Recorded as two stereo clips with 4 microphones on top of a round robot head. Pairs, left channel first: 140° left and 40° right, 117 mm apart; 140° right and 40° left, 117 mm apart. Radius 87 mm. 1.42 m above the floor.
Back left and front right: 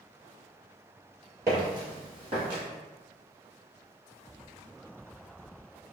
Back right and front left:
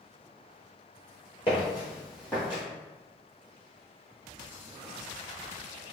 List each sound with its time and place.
1.5 s footsteps: 105° right, 1.8 m; by 2.6 s 60° right, 1.7 m